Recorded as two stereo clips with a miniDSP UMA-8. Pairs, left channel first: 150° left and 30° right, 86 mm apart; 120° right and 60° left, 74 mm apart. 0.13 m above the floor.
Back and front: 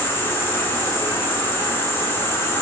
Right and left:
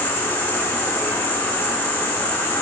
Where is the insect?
170° right, 0.9 m.